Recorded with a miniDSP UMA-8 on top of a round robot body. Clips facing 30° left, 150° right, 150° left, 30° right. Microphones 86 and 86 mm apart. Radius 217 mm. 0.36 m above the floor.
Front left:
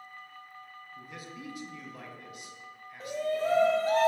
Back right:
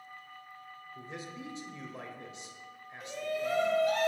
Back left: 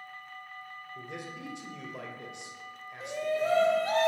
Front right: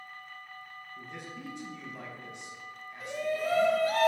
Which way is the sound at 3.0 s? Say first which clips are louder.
Front left 5 dB, back left 2 dB; 85° left.